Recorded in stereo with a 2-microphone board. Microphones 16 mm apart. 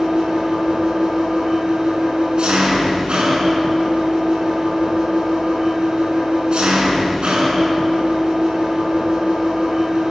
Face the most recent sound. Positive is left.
turn(degrees=-75)  # may be behind; listen again after turning